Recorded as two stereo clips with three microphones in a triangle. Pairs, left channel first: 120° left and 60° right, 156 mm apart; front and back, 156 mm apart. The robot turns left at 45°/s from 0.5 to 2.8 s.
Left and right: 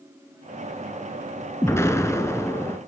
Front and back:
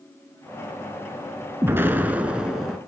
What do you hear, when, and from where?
1.6 s an explosion: 145° left, 0.8 m; by 2.8 s 95° left, 0.8 m